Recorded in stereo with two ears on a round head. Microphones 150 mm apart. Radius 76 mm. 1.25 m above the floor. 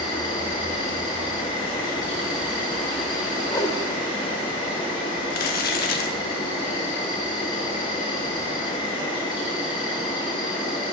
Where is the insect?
30° left (ahead or behind), 2.5 m.